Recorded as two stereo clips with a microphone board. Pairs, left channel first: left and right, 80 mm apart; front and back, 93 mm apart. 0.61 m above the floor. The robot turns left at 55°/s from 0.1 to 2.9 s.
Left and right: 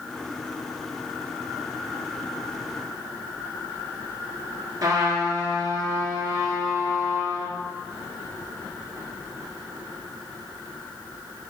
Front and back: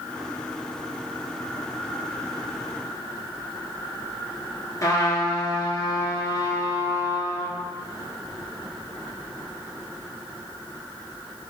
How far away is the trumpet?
About 1.5 m.